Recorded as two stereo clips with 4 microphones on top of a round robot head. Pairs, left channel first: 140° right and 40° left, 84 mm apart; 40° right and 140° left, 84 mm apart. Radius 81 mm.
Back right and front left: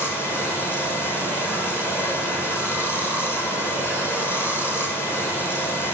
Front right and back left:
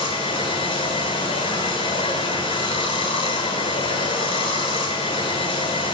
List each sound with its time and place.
0.0 s running water: 70° right, 3 m